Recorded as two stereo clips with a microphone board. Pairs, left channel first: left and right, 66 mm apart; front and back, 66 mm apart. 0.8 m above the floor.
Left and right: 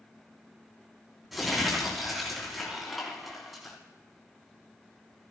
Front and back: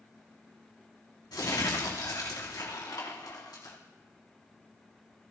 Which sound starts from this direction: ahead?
Crumpling, at 1.3 s.